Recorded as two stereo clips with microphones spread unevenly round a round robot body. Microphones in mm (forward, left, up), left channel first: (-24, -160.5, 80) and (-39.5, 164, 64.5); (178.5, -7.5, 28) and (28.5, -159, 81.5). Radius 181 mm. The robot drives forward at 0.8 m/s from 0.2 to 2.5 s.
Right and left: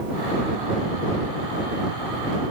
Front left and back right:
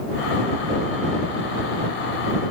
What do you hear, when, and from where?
Only background noise.